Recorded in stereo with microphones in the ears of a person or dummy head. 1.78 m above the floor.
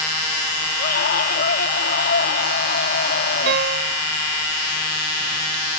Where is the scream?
55° left (ahead or behind).